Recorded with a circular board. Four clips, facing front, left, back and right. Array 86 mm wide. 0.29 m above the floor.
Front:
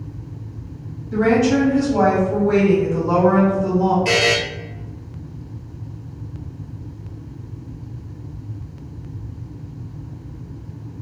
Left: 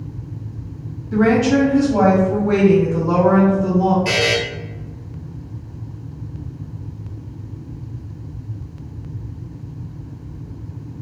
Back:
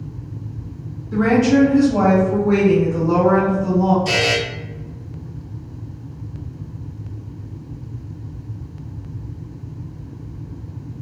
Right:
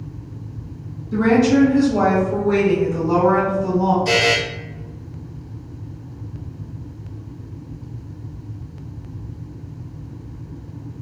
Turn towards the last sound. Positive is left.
turn(degrees=35)